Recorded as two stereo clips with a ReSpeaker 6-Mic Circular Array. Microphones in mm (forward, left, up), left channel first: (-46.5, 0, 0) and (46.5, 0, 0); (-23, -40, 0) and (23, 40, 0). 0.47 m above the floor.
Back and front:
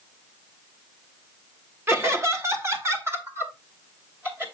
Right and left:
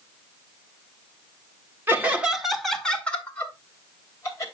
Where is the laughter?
20° left, 1.3 m; by 4.4 s 65° right, 2.5 m.